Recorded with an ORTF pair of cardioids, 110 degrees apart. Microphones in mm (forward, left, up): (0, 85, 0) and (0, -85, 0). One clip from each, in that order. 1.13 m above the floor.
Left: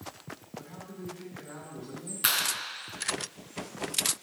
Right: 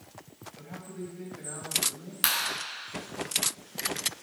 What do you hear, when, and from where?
0.6 s a man speaking: 55° right, 6.5 m
2.2 s a clap: 70° right, 7 m